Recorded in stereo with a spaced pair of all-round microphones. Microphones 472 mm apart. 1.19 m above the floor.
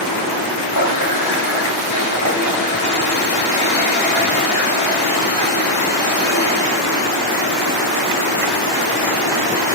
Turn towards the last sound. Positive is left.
turn(degrees=35)  # may be behind; listen again after turning